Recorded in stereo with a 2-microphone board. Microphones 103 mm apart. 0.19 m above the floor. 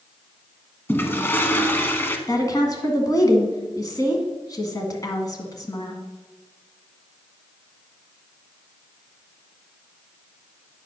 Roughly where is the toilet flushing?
Centre.